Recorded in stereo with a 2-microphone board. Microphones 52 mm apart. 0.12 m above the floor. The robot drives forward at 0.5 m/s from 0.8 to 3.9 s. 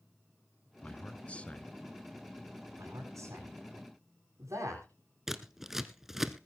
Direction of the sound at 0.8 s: 25° left (ahead or behind).